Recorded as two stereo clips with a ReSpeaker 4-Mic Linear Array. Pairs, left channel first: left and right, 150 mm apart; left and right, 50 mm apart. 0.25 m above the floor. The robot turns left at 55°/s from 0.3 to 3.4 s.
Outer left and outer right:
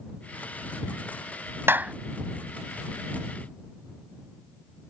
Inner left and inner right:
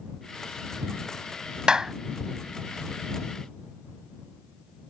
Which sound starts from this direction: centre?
A clap, at 1.7 s.